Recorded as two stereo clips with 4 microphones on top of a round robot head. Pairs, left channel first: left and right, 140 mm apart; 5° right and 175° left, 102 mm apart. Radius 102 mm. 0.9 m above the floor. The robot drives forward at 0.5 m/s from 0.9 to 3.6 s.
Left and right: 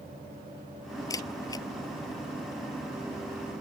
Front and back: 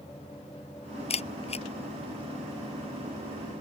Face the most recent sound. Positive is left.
turn(degrees=25)